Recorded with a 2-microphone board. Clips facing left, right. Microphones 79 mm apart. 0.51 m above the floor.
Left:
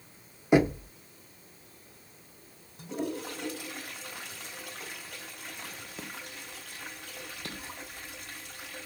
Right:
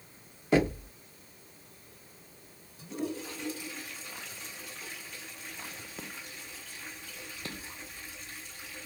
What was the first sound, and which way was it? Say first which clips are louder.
Knocking: left 3 dB; 20° left (ahead or behind).